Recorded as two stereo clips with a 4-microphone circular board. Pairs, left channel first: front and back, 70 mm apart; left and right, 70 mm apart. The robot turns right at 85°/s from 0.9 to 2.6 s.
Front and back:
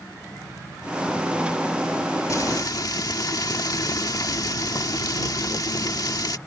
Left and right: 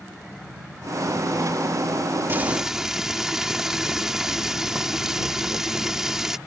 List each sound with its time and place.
2.3 s frying: 35° right; by 6.4 s 5° right